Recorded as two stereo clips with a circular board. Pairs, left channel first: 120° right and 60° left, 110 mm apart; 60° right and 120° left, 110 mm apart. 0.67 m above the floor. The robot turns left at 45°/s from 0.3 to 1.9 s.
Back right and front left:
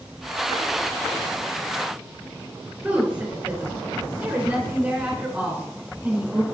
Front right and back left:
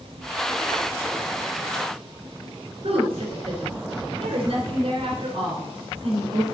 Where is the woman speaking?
135° left, 3 m.